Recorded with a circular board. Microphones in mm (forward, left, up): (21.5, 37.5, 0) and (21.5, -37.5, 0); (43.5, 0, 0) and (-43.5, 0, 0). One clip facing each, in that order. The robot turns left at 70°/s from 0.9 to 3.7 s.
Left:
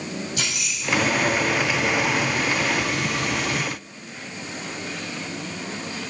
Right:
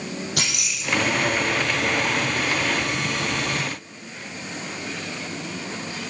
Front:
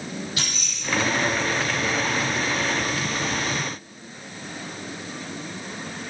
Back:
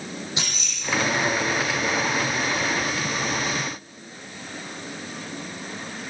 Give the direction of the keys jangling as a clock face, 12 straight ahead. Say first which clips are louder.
Even, even; 4 o'clock.